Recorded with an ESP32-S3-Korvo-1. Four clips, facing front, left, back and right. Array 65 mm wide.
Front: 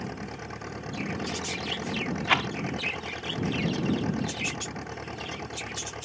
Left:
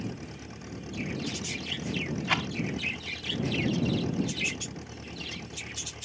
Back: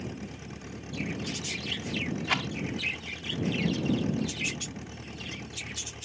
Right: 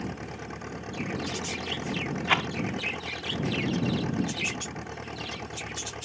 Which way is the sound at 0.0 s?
40° right.